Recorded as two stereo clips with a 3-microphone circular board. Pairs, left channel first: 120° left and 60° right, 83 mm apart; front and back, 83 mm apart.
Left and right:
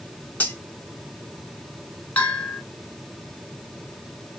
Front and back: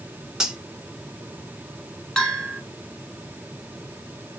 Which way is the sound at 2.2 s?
75° left.